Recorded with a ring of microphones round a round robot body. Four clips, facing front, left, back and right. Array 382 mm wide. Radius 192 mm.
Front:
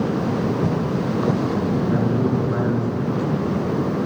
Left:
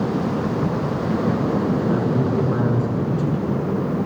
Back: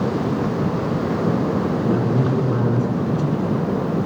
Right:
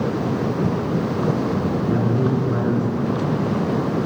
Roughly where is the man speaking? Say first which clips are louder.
Even, back 1 dB; behind left.